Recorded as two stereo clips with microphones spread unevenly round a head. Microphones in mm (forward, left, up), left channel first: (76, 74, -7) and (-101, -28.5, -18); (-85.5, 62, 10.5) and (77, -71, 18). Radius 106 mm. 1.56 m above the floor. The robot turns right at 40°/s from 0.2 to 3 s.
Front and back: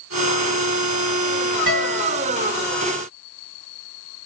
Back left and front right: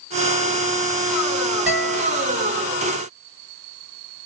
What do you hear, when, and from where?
1.7 s a guitar: 45° left, 2.5 m; by 2.3 s 70° left, 2.5 m